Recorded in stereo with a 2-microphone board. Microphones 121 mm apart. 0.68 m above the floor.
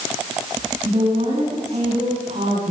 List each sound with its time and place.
0.8 s a woman speaking: 75° right (ahead or behind), 7 m